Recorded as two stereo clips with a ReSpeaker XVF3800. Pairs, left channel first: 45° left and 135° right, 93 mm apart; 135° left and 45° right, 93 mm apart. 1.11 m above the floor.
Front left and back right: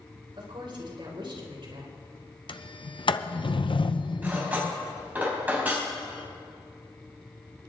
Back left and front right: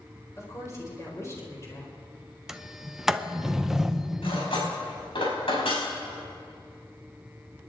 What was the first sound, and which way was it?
A woman speaking, 165° right.